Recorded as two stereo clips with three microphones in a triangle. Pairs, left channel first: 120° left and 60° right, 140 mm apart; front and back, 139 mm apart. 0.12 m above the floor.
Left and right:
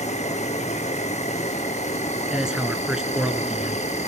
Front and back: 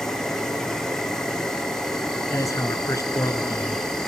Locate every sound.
0.0 s an insect: 85° left, 2.5 m
2.3 s a man speaking: 15° left, 1.7 m